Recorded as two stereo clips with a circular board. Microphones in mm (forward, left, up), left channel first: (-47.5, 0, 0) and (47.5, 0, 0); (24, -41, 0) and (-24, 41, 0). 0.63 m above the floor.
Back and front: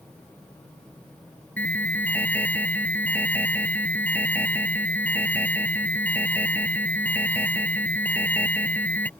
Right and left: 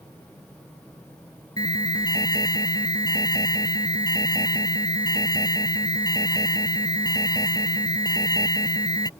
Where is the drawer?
I don't hear a drawer.